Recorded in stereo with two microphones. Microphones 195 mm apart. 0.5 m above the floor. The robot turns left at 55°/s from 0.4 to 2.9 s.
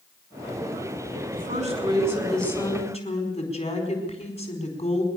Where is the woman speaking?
125° right, 4.5 m; by 5.1 s 145° left, 4.5 m.